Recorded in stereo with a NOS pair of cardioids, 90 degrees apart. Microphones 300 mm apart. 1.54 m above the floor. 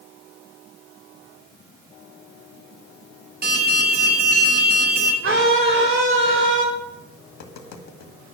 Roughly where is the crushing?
No crushing in this recording.